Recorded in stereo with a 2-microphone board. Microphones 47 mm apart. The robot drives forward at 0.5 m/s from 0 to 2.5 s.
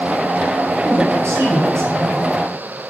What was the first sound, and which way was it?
A woman speaking, 75° right (ahead or behind).